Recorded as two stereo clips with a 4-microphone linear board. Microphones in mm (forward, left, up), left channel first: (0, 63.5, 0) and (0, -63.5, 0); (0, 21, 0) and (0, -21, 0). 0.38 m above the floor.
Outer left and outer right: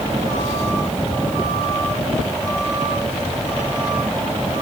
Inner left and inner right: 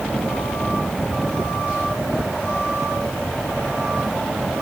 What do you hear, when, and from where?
Only background noise.